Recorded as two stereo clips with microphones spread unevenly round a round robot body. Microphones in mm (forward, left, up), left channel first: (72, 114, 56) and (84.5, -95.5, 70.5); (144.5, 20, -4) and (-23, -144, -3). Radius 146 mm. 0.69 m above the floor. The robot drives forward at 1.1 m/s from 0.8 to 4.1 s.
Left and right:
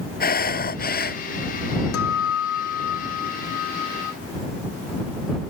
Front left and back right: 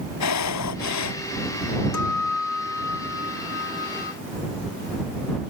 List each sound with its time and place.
0.2 s breathing: 50° left
1.9 s a guitar: 85° left; by 4.1 s 110° left